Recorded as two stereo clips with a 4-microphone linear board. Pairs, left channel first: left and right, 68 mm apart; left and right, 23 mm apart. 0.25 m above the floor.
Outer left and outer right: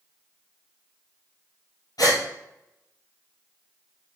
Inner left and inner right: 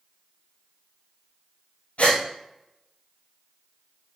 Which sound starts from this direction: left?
A gasp, at 2.0 s.